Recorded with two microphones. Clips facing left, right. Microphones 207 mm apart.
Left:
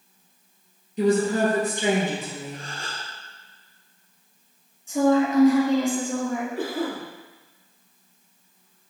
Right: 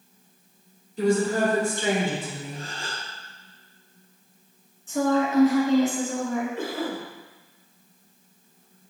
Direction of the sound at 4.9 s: 15° left (ahead or behind).